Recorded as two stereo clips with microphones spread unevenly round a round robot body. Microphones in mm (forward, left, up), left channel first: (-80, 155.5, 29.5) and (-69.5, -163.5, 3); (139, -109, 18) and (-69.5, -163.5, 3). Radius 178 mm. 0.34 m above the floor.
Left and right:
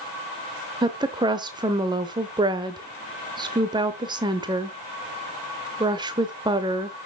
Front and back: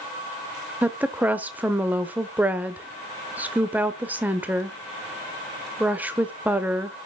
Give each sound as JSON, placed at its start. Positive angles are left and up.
{"t": 0.8, "sound": "a woman speaking", "azimuth_deg": -110, "distance_m": 0.8}